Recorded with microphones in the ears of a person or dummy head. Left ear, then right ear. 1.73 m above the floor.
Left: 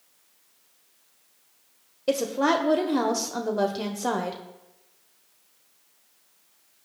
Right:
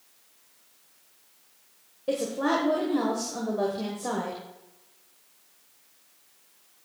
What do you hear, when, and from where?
2.1 s a woman speaking: 80° left, 1.1 m